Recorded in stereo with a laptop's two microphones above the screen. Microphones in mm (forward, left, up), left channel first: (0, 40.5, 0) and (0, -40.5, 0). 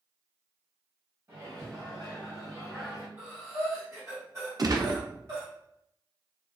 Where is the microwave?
45° right (ahead or behind), 1.9 m.